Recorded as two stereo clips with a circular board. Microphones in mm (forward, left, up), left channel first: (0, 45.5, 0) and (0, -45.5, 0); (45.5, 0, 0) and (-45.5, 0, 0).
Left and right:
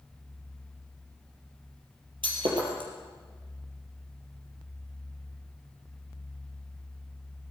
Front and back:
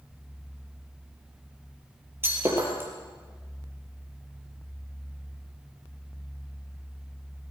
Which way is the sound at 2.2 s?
115° right.